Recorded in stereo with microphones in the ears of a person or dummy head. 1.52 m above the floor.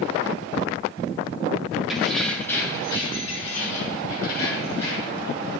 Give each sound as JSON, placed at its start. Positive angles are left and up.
{"t": 1.9, "sound": "keys jangling", "side_deg": -5, "distance_m": 2.0}